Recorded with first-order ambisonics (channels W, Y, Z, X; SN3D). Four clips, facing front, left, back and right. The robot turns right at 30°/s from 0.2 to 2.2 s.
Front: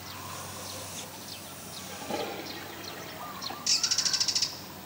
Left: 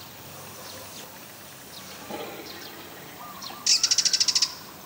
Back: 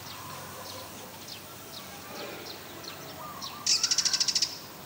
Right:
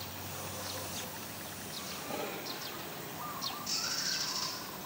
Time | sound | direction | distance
1.9 | a toilet flushing | 10° left | 1.2 m
3.7 | a bird | 95° left | 0.8 m